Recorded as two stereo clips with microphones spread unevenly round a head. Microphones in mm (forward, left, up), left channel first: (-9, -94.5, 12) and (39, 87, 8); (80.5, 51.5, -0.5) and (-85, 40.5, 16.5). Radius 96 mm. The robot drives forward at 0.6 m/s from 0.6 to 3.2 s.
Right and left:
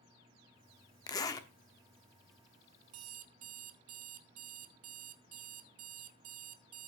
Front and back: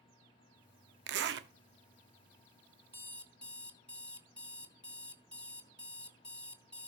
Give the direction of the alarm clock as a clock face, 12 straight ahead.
9 o'clock.